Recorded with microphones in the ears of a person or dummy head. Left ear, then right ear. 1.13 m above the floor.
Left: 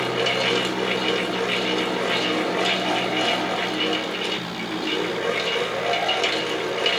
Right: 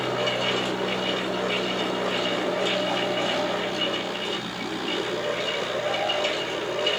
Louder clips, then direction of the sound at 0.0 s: Left 3 dB; 65° left (ahead or behind).